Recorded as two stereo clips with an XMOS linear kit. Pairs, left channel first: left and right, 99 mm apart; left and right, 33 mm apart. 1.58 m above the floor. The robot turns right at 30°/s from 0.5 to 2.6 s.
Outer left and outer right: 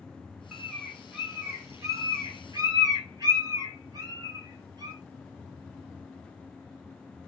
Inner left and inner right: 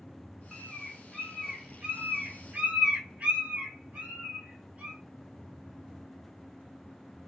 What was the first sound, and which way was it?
A bird, centre (ahead or behind).